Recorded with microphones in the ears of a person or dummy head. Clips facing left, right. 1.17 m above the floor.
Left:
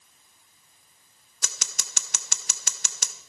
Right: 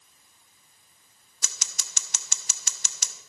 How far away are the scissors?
About 0.7 m.